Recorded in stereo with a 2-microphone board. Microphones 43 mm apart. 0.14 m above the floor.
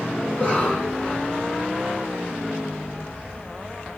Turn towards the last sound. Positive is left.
turn(degrees=25)  # may be behind; listen again after turning